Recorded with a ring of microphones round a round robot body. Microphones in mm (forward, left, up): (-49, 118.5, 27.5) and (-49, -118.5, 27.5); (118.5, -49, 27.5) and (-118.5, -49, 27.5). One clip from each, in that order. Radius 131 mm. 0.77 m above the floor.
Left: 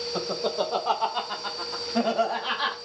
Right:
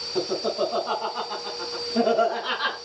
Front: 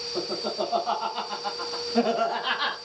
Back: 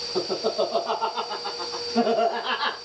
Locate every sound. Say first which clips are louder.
0.1 s laughter: right 3 dB, back 5 dB; 105° left, 1.4 m; by 2.8 s 35° left, 1.6 m